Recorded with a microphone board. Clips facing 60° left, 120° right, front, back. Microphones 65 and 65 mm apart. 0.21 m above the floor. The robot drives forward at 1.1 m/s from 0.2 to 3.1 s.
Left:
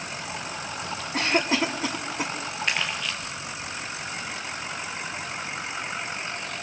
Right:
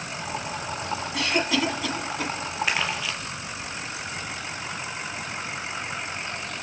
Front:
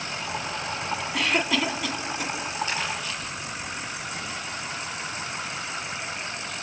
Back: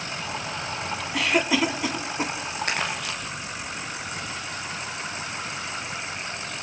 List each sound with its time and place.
1.1 s a cough: 90° left, 2 m; by 2.3 s 130° left, 2.5 m
2.7 s crumpling: 155° left, 2.5 m; by 3.2 s 160° left, 3 m